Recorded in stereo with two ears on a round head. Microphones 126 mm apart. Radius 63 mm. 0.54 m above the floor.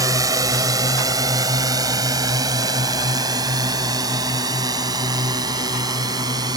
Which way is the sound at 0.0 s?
25° right (ahead or behind).